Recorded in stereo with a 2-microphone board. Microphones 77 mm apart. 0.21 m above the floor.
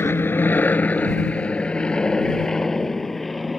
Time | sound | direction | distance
0.0 | an aircraft | 30° left (ahead or behind) | ?